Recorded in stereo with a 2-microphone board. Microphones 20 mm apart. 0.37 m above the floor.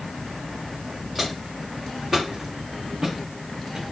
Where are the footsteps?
5° right (ahead or behind), 1.6 m; by 3.8 s 55° right (ahead or behind), 1.5 m.